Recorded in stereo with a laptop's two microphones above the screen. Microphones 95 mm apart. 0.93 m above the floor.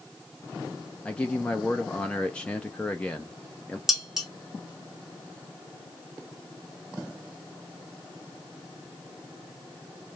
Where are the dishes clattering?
5° right (ahead or behind), 0.6 m.